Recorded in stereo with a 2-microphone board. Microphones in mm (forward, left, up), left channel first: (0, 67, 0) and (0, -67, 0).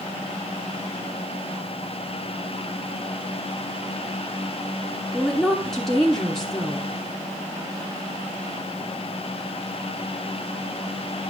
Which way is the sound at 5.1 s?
5° left (ahead or behind).